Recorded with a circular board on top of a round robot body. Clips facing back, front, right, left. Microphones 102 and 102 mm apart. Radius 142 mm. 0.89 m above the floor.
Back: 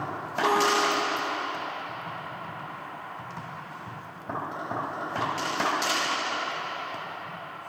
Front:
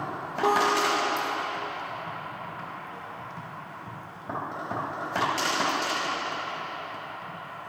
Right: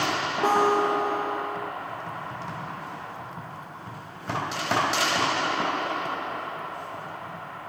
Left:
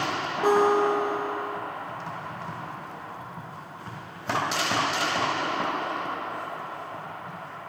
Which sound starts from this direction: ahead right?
A guitar, at 0.4 s.